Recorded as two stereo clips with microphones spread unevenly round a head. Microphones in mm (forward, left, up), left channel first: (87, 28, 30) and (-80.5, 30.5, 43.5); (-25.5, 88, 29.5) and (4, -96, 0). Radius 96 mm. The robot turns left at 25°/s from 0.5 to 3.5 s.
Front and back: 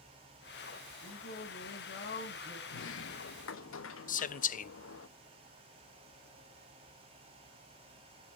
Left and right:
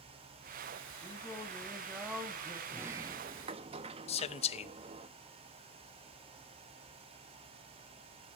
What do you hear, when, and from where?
1.0 s singing: 25° left, 2.5 m; by 2.6 s 10° right, 2.5 m
2.7 s a sliding door: 5° left, 0.6 m; by 5.1 s 15° right, 0.6 m
4.1 s a man speaking: 35° left, 0.6 m